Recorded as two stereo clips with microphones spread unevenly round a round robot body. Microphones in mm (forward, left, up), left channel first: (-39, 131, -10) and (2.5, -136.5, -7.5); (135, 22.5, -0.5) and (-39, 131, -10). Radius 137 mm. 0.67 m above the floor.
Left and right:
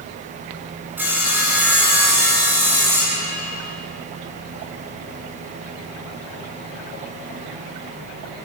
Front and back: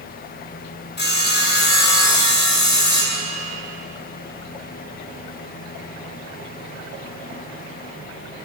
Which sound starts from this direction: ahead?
Sawing, at 1.0 s.